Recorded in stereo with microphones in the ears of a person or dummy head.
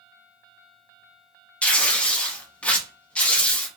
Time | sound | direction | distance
1.6 | tearing paper | 10° left (ahead or behind) | 0.6 m